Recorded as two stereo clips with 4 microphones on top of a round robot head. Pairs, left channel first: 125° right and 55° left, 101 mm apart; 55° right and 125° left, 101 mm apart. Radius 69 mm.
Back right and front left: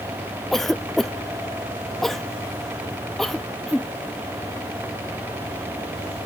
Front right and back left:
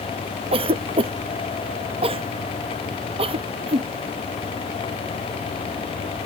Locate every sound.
0.5 s a cough: 145° left